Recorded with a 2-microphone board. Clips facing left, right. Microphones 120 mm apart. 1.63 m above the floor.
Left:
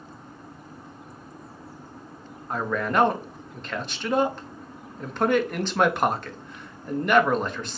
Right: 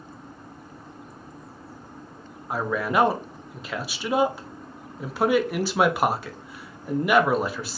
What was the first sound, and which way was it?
A man speaking, 5° right (ahead or behind).